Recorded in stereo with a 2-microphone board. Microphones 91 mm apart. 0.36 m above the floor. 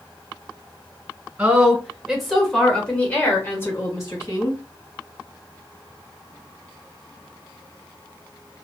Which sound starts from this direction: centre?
A woman speaking, at 1.4 s.